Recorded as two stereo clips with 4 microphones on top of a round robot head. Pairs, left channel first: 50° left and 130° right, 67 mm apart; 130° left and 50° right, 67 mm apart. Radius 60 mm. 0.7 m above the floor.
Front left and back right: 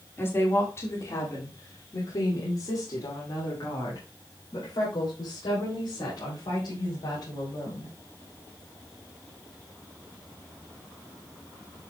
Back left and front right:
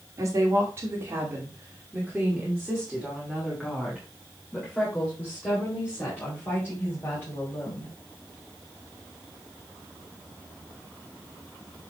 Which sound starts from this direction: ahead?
A woman speaking, at 0.2 s.